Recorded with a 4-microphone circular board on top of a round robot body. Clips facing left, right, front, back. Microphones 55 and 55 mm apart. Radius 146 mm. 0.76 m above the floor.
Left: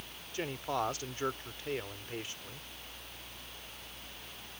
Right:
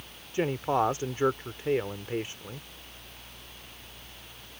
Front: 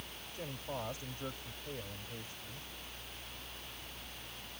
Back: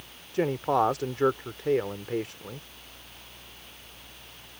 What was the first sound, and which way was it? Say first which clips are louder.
A man speaking: right 9 dB, back 18 dB; 155° right.